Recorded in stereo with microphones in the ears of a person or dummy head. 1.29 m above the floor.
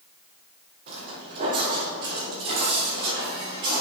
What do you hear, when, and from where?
0.9 s footsteps: 55° right (ahead or behind), 2.5 m; by 3.8 s 35° right (ahead or behind), 4.5 m